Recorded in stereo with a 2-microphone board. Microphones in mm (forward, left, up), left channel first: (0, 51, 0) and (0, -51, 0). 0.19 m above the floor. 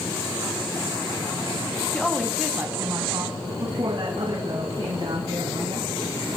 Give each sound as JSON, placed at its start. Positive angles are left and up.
{"t": 1.9, "sound": "a woman speaking", "side_deg": 10, "distance_m": 1.1}